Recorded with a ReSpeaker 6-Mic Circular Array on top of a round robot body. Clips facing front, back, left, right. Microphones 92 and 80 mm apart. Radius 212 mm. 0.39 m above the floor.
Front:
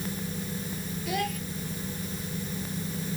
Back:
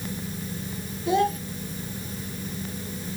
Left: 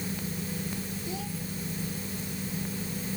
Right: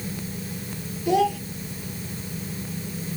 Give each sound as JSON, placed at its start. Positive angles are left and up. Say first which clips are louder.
{"t": 1.1, "sound": "a child speaking", "louder": "back 9 dB, right 21 dB", "azimuth_deg": -115}